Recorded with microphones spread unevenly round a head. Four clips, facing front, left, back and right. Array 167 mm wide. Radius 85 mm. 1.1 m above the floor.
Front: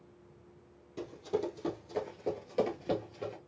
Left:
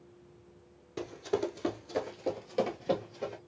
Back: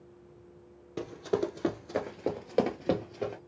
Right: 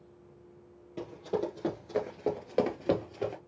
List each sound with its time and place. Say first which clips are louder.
1.0 s running footsteps: left 1 dB, back 4 dB; 170° left, 1.2 m; by 3.4 s 125° right, 1.7 m